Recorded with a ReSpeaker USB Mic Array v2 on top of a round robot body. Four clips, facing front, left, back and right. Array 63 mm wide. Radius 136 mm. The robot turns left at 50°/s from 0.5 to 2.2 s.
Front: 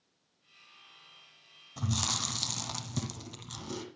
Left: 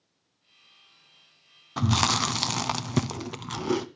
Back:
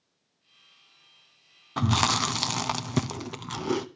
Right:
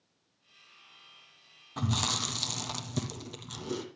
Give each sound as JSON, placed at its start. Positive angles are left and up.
{"t": 1.8, "sound": "chewing", "azimuth_deg": 160, "distance_m": 0.9}